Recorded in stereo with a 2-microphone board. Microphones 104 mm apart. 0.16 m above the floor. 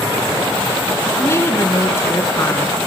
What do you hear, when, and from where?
1.2 s a woman speaking: 25° left (ahead or behind), 2 m